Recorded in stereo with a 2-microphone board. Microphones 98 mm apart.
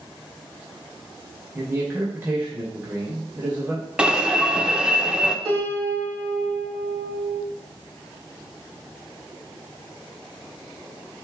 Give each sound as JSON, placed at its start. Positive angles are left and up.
{"t": 1.6, "sound": "a man speaking", "side_deg": -20, "distance_m": 1.8}
{"t": 4.0, "sound": "an alarm", "side_deg": -10, "distance_m": 0.7}
{"t": 5.5, "sound": "a piano", "side_deg": -60, "distance_m": 2.5}